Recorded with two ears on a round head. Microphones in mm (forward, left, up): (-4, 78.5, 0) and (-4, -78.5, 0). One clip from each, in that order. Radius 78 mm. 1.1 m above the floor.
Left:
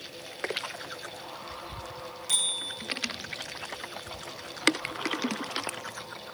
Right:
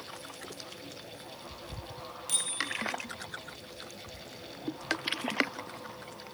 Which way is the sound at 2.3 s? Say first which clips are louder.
Left 4 dB; 5° right (ahead or behind).